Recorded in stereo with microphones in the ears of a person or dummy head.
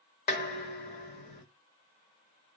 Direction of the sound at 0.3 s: 50° left (ahead or behind).